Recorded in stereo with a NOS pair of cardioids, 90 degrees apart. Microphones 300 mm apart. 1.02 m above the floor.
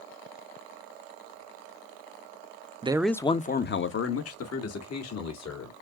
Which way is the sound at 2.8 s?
20° right.